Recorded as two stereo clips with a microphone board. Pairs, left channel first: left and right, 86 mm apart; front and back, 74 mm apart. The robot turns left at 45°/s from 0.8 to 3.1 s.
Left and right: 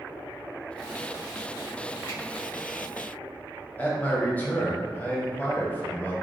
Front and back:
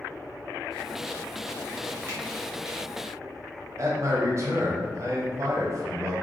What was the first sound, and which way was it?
A finger snap, 125° left.